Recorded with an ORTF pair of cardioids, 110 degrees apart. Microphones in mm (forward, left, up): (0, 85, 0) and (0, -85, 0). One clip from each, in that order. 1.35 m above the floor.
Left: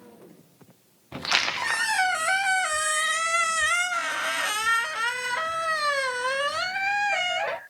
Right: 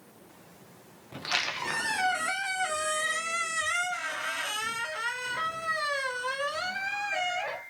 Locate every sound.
1.1 s a squeak: 30° left, 0.6 m